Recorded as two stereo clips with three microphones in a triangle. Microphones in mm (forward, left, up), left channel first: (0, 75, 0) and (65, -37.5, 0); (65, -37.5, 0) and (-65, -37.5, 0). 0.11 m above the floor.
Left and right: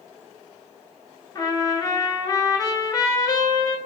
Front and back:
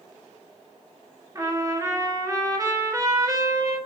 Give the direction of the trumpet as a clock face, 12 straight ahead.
7 o'clock.